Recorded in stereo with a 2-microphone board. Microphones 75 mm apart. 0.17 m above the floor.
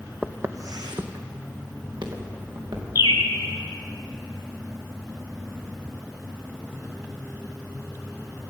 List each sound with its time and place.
0.2 s footsteps: 15° right (ahead or behind), 0.5 m; by 2.9 s 75° right (ahead or behind), 3 m
3.0 s a bird: 70° left (ahead or behind), 0.7 m